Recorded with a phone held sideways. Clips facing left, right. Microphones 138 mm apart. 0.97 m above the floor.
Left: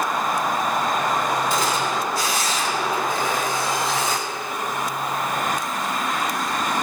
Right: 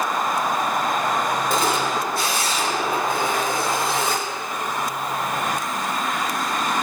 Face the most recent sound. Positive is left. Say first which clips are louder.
# right 1 dB
turn(degrees=-55)  # may be behind; listen again after turning